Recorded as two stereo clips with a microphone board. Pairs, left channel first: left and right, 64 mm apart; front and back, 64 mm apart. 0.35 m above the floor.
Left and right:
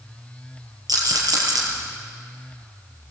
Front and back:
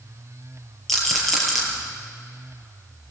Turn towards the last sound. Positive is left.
turn(degrees=-85)